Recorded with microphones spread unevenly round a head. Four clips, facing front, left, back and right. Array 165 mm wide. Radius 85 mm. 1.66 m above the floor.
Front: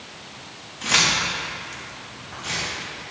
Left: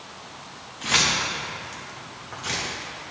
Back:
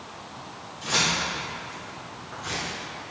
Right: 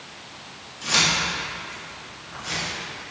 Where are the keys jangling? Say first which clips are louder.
Even, front 3 dB; 25° left, 2.5 m; by 2.7 s 80° left, 2.5 m.